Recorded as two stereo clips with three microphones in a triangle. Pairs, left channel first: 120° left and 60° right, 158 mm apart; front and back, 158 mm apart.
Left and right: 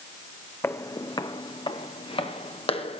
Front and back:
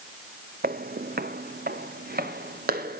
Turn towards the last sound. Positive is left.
turn(degrees=170)